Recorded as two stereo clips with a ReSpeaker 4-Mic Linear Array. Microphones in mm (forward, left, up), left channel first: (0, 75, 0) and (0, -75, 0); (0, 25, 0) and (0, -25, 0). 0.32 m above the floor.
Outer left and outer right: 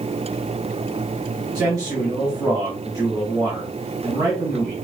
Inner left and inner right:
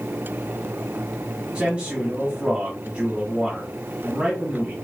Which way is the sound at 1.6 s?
25° right (ahead or behind).